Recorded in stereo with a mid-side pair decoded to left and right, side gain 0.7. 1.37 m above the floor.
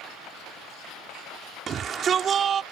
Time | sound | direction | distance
1.7 | a shout | 35° right | ?